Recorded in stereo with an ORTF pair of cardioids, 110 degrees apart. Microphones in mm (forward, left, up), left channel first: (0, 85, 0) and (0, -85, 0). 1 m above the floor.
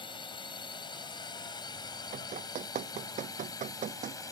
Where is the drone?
30° left; by 4.3 s 20° left.